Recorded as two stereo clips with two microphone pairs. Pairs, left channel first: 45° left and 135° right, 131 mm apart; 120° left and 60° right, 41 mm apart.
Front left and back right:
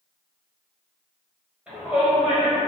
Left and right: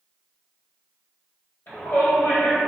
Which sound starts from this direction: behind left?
A shout, at 1.7 s.